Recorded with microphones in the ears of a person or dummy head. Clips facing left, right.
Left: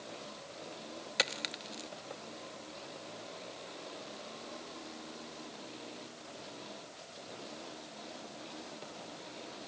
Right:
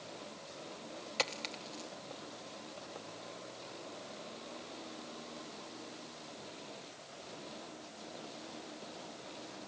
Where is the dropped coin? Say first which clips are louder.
Left 1 dB; 20° left (ahead or behind), 0.9 m.